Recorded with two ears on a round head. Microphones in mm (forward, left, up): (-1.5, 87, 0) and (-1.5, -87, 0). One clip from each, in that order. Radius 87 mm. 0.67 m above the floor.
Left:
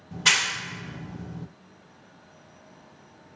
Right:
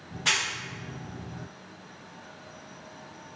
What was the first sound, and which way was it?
A clap, 40° left (ahead or behind).